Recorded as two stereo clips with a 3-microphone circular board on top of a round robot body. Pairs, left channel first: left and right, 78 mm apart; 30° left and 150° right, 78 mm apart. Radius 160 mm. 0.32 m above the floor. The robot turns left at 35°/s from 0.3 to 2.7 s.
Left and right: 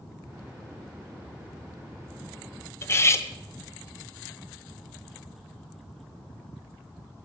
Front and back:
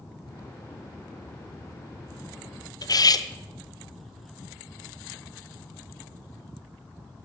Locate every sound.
2.8 s cutlery clinking: 40° left, 1.0 m